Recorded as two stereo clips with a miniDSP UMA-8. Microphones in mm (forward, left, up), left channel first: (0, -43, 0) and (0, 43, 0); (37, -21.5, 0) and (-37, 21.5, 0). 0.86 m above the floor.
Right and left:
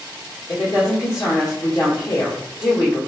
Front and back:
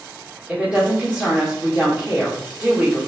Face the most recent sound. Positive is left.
turn(degrees=-135)